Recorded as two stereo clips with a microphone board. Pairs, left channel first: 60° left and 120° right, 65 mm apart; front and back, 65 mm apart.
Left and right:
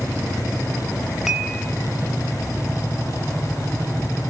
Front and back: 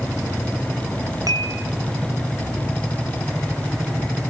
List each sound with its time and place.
1.3 s dishes clattering: 155° left, 2.5 m